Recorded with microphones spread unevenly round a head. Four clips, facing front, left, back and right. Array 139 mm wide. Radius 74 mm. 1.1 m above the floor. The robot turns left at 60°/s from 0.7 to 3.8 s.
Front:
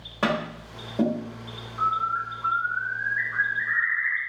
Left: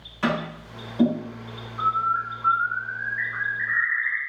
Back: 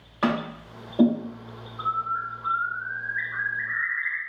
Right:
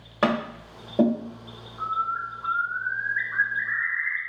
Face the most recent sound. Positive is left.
turn(degrees=-100)